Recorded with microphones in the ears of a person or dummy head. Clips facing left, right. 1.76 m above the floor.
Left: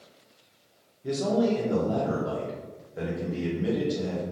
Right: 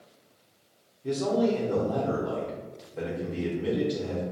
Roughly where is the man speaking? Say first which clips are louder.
Even; centre.